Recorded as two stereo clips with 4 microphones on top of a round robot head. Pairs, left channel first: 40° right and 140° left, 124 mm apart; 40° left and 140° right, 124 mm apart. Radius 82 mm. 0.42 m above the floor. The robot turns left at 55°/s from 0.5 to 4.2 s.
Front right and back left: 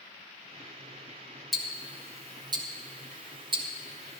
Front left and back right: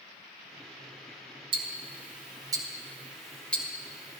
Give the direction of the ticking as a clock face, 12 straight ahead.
4 o'clock.